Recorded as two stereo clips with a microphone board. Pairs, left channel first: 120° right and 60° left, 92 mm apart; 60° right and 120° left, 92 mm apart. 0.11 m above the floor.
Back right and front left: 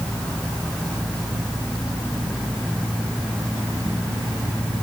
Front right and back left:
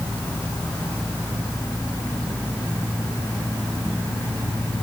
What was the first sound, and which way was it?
Only background noise.